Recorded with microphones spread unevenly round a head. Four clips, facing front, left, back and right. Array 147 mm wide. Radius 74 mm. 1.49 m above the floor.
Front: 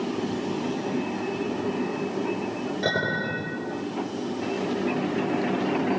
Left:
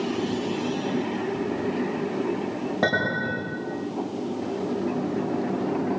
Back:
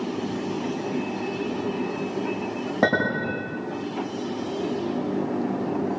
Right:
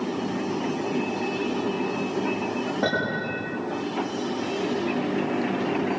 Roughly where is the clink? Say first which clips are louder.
Left 4 dB, back 6 dB; behind.